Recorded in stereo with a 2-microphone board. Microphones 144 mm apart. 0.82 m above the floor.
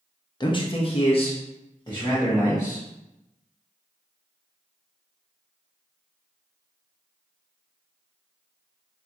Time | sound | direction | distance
0.4 | a man speaking | 30° left (ahead or behind) | 0.6 m